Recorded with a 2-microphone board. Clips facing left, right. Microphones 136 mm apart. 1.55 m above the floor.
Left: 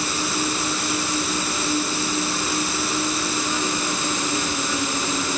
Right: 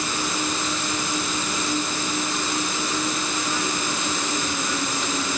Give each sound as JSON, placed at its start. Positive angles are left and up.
{"t": 0.0, "sound": "an insect", "side_deg": 10}